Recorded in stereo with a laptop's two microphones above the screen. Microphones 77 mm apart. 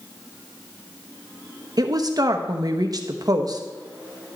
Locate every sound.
1.8 s a woman speaking: 50° right (ahead or behind), 1.0 m